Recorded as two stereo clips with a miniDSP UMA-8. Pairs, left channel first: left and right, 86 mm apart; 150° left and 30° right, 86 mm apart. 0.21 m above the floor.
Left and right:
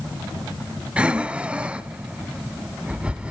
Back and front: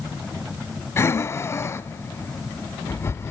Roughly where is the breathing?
Behind.